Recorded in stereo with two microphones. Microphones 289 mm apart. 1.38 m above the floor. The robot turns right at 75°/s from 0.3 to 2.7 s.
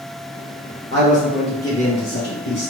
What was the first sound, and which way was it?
A man speaking, 45° right.